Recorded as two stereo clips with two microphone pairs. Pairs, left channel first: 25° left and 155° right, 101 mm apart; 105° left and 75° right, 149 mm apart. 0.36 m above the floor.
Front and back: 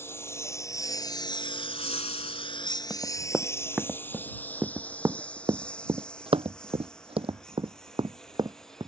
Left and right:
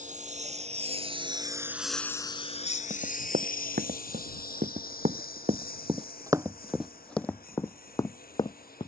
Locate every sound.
0.0 s a lawn mower: 40° right; by 8.9 s 110° left
2.9 s running footsteps: 65° right; by 8.9 s 160° left